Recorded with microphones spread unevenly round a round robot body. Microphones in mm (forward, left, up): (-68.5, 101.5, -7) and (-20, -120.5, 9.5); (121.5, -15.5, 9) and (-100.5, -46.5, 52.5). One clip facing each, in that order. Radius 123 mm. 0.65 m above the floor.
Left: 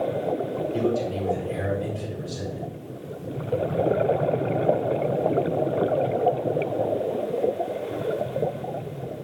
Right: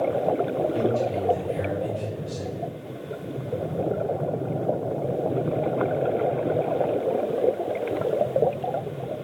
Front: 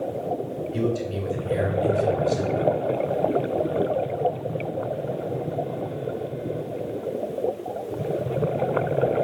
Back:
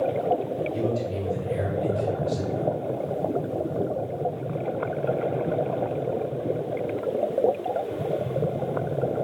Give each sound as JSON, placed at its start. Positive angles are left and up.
{"t": 0.7, "sound": "a man speaking", "azimuth_deg": 25, "distance_m": 4.0}